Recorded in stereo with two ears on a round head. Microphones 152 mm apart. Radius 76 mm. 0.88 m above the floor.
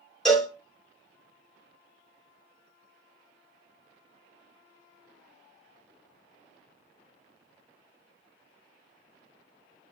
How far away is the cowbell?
About 0.7 m.